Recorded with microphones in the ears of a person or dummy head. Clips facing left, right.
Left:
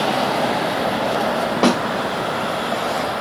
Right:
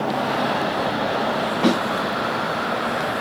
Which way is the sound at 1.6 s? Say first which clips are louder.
Left 2 dB; 70° left (ahead or behind).